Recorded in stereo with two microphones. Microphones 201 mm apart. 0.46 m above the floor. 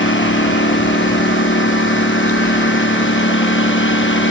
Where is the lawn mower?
90° left.